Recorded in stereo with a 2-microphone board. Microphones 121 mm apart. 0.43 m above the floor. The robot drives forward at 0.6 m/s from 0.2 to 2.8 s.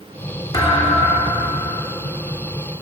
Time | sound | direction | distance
0.5 | a thud | 30° left (ahead or behind) | 2.0 m